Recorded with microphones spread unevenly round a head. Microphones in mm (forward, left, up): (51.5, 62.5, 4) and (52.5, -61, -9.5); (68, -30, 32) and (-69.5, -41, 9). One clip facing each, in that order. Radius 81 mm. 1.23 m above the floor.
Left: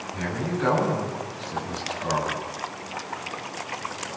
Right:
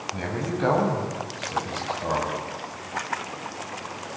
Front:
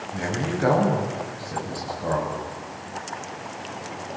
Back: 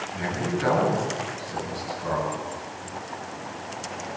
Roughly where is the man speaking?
Ahead right.